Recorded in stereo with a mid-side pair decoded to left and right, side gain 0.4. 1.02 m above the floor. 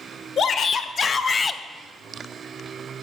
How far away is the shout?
About 1.4 m.